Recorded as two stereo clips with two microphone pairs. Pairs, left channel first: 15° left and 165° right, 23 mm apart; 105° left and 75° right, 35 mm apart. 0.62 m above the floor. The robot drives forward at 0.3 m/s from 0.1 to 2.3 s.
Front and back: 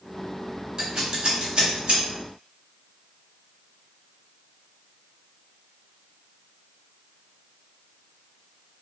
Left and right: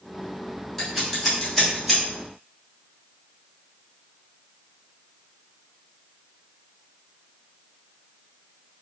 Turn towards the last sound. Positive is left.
turn(degrees=-175)